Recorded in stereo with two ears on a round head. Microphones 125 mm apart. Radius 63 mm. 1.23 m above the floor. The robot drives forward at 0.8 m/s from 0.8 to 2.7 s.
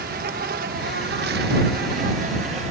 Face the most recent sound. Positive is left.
turn(degrees=-50)  # may be behind; listen again after turning